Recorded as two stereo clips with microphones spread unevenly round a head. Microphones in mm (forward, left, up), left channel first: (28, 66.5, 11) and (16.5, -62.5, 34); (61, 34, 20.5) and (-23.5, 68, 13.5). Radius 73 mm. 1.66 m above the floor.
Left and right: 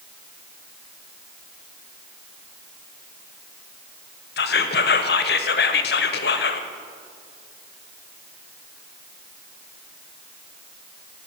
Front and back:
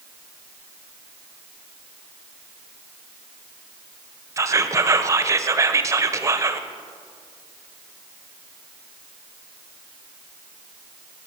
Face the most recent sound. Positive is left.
turn(degrees=100)